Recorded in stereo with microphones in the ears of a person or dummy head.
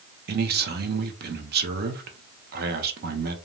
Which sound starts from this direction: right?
A man speaking, at 0.3 s.